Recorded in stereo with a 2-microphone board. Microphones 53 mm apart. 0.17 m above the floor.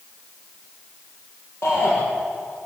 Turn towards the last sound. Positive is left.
turn(degrees=60)  # may be behind; listen again after turning